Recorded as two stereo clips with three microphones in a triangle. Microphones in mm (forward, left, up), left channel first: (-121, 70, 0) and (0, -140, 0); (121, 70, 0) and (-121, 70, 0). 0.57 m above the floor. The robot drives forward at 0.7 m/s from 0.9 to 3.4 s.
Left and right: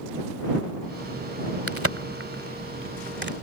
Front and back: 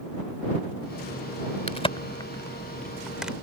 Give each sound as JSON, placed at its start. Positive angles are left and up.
{"t": 1.7, "sound": "a crack", "azimuth_deg": -60}